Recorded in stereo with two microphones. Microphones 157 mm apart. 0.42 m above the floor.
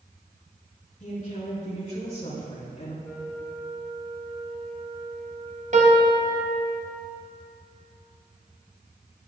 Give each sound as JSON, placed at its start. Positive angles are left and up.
{"t": 1.0, "sound": "a woman speaking", "side_deg": 50, "distance_m": 1.6}
{"t": 3.0, "sound": "a flute", "side_deg": 0, "distance_m": 1.5}
{"t": 5.7, "sound": "a piano", "side_deg": -55, "distance_m": 1.2}